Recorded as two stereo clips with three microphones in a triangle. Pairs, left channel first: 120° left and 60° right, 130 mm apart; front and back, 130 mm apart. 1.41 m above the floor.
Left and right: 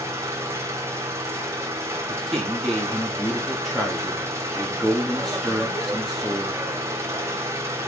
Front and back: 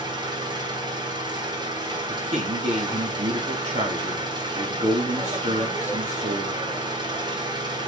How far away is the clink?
I don't hear a clink.